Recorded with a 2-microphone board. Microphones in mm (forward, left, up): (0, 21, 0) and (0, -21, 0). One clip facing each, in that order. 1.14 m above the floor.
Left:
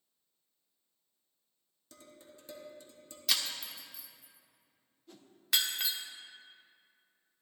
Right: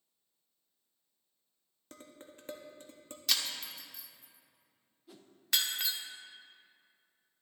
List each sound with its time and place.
1.9 s dishes clattering: 45° right (ahead or behind), 1.0 m
3.3 s breaking glass: centre (ahead or behind), 0.8 m
5.1 s a whoosh: 5° right (ahead or behind), 0.7 m